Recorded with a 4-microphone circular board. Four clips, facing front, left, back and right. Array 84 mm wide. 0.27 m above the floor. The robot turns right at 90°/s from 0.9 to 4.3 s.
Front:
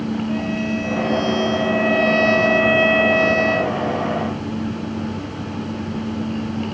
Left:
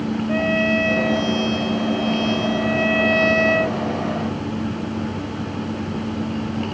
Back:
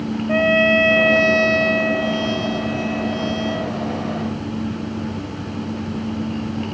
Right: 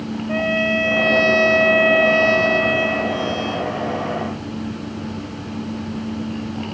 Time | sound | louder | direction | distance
0.3 | a trumpet | right 1 dB, back 7 dB | 175° right | ?